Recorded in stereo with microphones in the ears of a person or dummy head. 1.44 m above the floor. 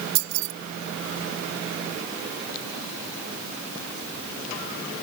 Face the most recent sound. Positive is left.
turn(degrees=-80)